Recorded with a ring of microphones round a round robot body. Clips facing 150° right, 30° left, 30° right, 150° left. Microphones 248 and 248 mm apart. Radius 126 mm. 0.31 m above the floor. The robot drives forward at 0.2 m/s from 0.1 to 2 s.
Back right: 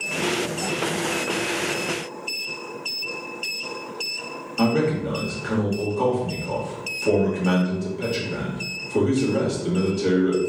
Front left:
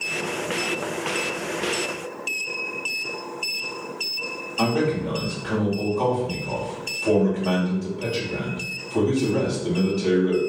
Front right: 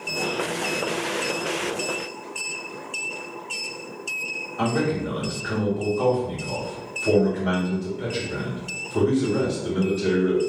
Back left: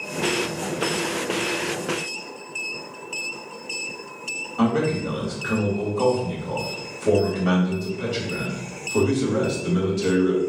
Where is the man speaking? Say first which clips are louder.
Back right 2 dB, back left 3 dB; 160° left, 1.5 m.